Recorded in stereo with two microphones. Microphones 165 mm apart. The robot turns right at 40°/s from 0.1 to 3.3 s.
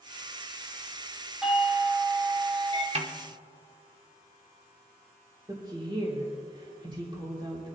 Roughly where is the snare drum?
Right.